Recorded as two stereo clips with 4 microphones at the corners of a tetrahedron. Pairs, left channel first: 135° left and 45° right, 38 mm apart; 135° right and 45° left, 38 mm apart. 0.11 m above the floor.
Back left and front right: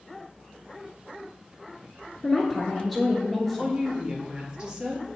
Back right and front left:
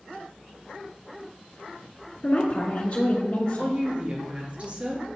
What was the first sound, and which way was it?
A woman speaking, 145° right.